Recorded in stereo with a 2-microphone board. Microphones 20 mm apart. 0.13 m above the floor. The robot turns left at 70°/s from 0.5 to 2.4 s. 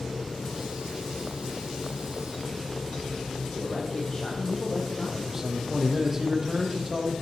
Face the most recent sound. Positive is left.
turn(degrees=-25)  # may be behind; listen again after turning